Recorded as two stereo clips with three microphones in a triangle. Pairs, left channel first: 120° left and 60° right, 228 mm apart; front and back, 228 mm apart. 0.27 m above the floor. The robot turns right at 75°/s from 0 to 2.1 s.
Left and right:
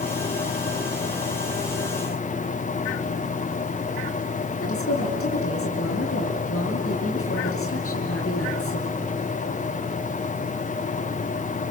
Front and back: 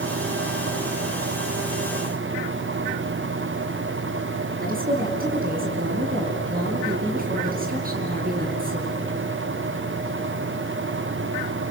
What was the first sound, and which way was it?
A woman speaking, 130° left.